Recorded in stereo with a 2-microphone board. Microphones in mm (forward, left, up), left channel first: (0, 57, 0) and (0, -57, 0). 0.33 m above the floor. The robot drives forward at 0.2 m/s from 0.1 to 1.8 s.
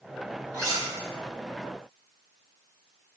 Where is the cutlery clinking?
30° right (ahead or behind), 1.5 m.